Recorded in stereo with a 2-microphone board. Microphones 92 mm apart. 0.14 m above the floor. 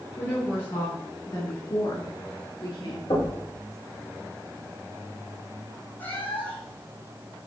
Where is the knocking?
55° left (ahead or behind), 2.5 m.